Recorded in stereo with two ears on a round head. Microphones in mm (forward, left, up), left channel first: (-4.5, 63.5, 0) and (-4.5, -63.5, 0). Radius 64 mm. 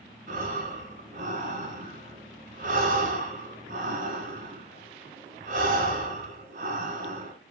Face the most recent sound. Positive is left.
turn(degrees=-55)  # may be behind; listen again after turning